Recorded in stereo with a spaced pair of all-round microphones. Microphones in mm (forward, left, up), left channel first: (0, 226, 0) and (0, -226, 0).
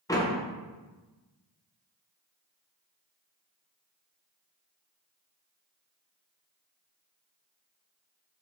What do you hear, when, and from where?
0.1 s a door slam: 10° left (ahead or behind), 0.6 m